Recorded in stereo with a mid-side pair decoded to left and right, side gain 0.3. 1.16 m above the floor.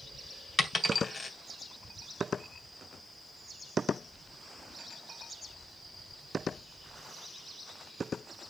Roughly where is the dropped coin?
Ahead left.